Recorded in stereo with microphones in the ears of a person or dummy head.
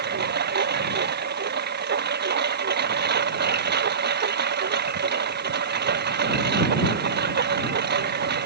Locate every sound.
0.0 s a lawn mower: 50° right (ahead or behind)